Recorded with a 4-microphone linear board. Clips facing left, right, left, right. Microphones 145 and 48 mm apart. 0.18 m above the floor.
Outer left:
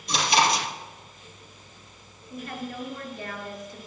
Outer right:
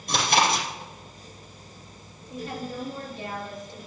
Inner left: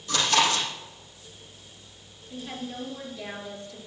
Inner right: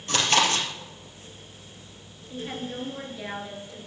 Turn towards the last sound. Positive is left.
turn(degrees=-20)  # may be behind; listen again after turning